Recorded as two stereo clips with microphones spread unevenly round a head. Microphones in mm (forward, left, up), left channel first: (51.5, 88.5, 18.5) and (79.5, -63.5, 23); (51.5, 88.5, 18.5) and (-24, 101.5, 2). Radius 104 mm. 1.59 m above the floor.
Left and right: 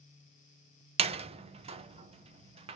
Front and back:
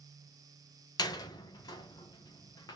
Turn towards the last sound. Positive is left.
turn(degrees=-35)